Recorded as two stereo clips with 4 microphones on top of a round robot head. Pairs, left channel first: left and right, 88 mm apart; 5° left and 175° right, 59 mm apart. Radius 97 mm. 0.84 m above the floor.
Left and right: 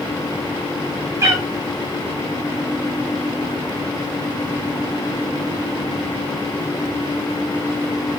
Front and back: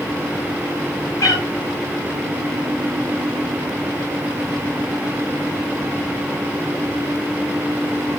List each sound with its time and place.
1.2 s a cat meowing: 30° right, 6 m